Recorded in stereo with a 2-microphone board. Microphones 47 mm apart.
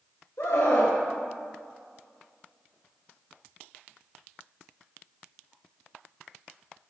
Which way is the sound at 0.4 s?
60° left (ahead or behind).